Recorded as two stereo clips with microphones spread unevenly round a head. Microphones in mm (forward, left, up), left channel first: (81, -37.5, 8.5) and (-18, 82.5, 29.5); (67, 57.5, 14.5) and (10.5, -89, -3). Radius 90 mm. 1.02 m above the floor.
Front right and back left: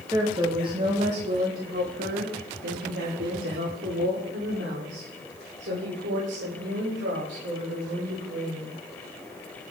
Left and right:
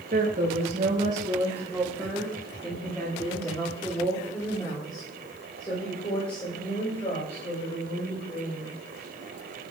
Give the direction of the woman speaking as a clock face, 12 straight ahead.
5 o'clock.